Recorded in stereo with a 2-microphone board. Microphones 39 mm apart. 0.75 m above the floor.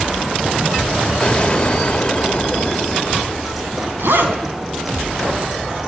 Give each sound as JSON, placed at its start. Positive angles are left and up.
{"t": 1.2, "sound": "an explosion", "side_deg": 20, "distance_m": 1.9}
{"t": 4.0, "sound": "a zipper", "side_deg": -70, "distance_m": 3.5}